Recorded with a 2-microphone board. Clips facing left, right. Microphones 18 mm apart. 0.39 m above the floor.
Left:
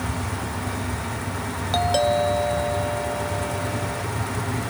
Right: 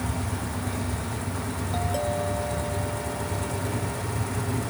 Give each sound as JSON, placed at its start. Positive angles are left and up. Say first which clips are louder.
{"t": 1.7, "sound": "a doorbell", "louder": "left 9 dB", "side_deg": 60}